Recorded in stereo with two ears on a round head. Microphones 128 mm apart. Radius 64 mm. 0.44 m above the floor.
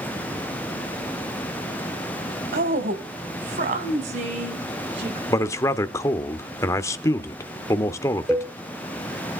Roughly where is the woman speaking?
Right.